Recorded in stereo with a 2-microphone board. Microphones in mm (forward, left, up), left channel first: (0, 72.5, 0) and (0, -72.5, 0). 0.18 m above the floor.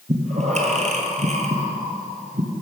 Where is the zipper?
No zipper in this recording.